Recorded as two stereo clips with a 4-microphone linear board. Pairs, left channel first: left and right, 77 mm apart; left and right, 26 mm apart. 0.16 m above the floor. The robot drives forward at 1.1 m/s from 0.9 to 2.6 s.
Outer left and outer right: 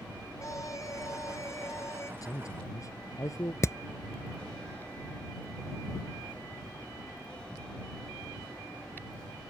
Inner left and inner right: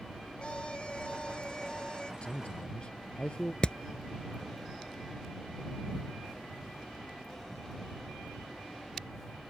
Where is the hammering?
40° left (ahead or behind).